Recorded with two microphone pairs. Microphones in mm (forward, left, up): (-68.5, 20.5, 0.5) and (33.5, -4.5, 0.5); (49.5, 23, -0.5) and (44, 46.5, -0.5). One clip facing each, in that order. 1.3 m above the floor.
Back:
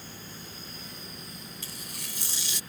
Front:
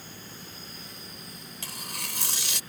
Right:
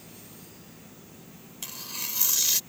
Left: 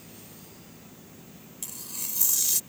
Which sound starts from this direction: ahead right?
Tearing paper, at 1.6 s.